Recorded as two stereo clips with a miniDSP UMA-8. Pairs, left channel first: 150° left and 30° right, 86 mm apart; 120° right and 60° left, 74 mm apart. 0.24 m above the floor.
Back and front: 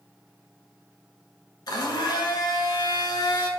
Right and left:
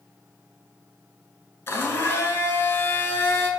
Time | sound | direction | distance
1.7 | a blender | 175° right | 1.5 m